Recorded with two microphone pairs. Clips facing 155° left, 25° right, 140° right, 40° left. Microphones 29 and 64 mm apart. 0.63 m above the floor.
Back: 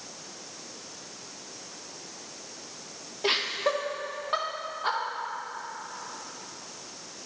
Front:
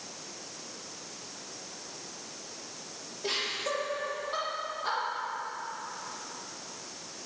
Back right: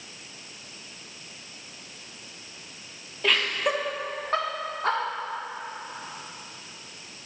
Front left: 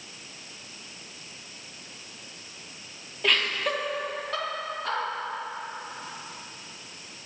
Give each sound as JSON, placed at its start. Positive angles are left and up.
{"t": 3.2, "sound": "laughter", "azimuth_deg": 130, "distance_m": 1.2}